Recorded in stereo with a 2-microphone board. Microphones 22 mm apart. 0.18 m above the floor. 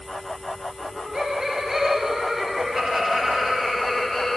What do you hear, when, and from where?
0.8 s laughter: 25° right (ahead or behind), 3 m; by 4.4 s 15° left (ahead or behind), 1.8 m